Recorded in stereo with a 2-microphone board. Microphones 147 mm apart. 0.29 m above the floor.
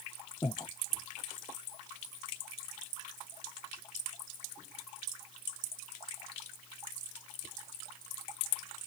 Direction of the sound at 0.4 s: 25° left (ahead or behind).